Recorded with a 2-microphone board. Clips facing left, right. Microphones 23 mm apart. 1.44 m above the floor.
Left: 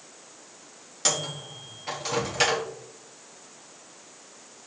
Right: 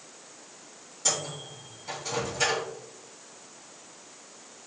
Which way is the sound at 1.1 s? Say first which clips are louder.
Left 3 dB; 70° left (ahead or behind).